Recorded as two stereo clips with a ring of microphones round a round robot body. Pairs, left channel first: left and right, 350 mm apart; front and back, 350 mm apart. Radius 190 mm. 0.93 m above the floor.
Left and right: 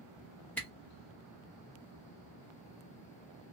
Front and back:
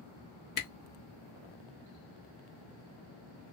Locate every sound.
0.6 s a camera shutter: 10° left, 0.6 m